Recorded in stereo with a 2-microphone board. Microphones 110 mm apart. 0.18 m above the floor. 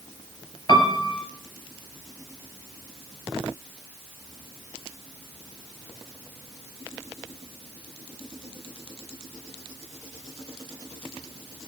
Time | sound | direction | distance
0.7 | a piano | 45° left (ahead or behind) | 2.5 m